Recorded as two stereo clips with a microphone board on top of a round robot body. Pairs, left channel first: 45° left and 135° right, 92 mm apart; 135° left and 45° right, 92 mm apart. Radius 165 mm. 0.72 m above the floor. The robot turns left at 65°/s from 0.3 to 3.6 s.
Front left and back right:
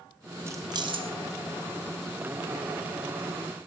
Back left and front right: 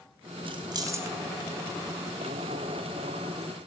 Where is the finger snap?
I don't hear a finger snap.